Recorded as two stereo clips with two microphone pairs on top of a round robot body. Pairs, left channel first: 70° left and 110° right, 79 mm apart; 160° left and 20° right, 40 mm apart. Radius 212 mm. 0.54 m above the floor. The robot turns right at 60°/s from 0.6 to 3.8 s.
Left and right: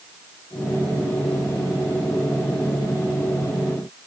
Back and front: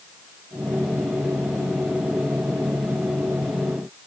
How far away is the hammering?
I don't hear hammering.